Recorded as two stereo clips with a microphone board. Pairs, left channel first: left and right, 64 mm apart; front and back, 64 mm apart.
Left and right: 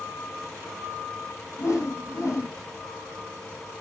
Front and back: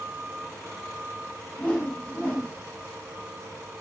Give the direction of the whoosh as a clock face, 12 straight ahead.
10 o'clock.